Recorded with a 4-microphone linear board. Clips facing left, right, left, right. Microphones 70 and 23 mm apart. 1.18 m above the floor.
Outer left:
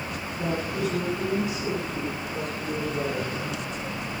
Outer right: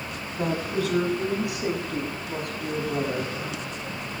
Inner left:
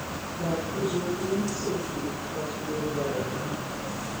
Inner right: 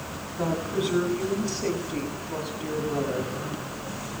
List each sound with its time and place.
0.4 s a woman speaking: 85° right, 7 m; by 3.4 s 70° right (ahead or behind), 6.5 m